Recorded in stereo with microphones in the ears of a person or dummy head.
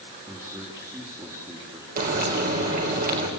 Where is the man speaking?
15° right (ahead or behind), 4 m.